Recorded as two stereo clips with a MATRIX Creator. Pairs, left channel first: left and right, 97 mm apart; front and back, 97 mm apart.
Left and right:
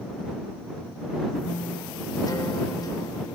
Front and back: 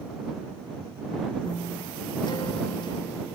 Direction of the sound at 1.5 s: 40° left.